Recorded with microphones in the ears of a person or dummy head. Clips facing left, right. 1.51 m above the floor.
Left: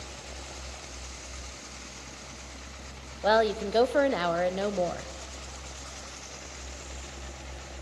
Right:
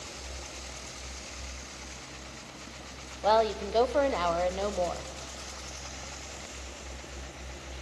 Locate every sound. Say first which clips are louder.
3.2 s a woman speaking: left 1 dB; 15° left (ahead or behind), 0.6 m